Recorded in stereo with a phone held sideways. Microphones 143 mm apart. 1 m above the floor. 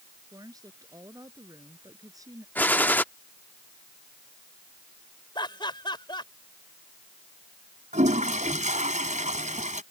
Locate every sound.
0.3 s a woman speaking: 25° right (ahead or behind)
2.5 s a gunshot: 10° left (ahead or behind)
5.3 s laughter: 30° left (ahead or behind)
7.9 s a toilet flushing: 60° right (ahead or behind)